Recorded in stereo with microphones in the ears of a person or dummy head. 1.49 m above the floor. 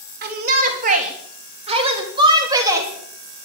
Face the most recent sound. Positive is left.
turn(degrees=-5)  # may be behind; listen again after turning